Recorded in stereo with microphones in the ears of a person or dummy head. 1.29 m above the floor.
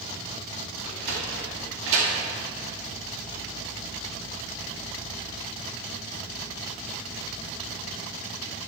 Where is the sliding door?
70° right (ahead or behind), 2 m.